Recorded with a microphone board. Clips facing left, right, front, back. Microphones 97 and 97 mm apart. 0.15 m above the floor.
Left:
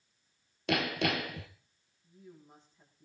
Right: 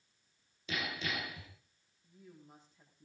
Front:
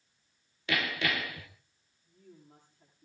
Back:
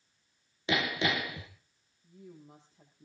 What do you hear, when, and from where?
0.7 s hammering: 110° left, 1.9 m
2.0 s a woman speaking: straight behind, 7 m